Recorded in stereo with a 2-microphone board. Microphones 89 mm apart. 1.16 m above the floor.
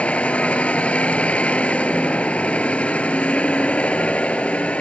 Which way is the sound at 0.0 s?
15° left (ahead or behind).